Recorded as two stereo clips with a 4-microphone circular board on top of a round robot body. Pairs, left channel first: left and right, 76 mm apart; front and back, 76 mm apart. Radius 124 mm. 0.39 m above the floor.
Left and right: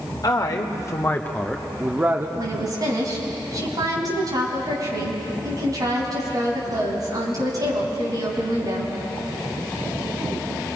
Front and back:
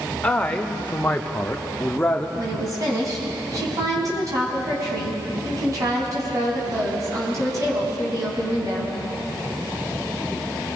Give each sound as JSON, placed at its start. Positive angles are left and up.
{"t": 0.2, "sound": "a man speaking", "azimuth_deg": 75, "distance_m": 2.0}
{"t": 2.4, "sound": "a woman speaking", "azimuth_deg": -130, "distance_m": 5.0}